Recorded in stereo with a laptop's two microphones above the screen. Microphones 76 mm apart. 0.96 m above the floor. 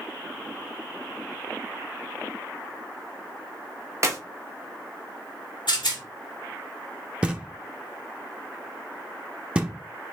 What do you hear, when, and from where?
4.0 s a clap: 40° right (ahead or behind), 1.1 m
5.7 s a rattle: 80° left, 2 m
7.2 s knocking: 15° right (ahead or behind), 0.8 m